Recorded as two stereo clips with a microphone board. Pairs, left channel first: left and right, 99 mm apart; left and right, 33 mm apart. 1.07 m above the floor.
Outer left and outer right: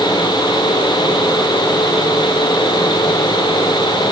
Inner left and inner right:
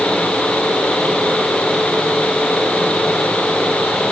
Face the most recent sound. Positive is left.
No sound to turn to.